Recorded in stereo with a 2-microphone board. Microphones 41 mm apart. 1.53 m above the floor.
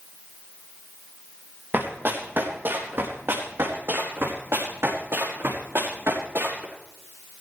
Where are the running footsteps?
55° right (ahead or behind), 3.5 m; by 6.7 s 65° right (ahead or behind), 6 m.